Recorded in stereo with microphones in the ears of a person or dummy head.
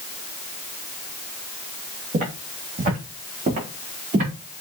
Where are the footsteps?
40° right (ahead or behind), 4 m.